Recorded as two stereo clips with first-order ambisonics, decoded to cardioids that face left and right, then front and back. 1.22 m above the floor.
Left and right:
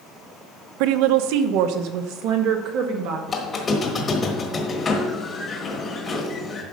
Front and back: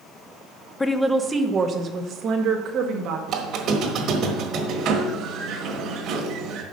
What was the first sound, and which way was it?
A woman speaking, 80° right.